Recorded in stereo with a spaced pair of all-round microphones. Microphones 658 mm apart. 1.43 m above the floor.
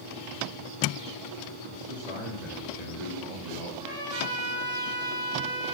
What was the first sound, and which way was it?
A man speaking, 70° right (ahead or behind).